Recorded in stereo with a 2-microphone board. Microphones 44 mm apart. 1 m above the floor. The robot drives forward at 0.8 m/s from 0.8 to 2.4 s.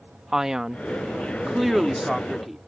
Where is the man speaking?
10° right (ahead or behind); by 2.6 s 5° right (ahead or behind).